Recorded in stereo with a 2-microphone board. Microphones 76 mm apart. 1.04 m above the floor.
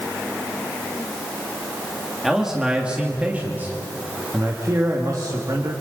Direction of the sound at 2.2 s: 5° right (ahead or behind).